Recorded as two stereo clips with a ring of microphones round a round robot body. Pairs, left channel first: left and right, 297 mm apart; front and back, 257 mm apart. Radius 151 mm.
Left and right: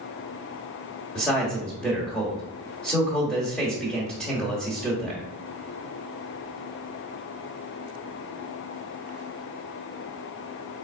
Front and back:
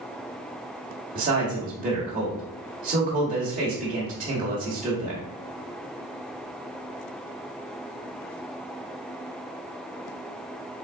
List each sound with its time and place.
1.1 s a man speaking: 175° left, 1.3 m